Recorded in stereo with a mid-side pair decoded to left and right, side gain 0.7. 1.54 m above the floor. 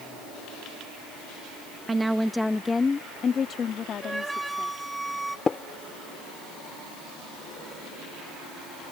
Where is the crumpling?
I don't hear crumpling.